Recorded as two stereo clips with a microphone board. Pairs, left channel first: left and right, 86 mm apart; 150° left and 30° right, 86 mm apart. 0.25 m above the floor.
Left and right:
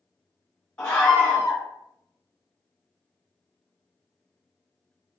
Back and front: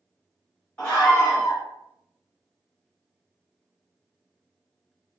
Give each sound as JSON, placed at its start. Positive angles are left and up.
{"t": 0.8, "sound": "a scream", "azimuth_deg": 105, "distance_m": 1.2}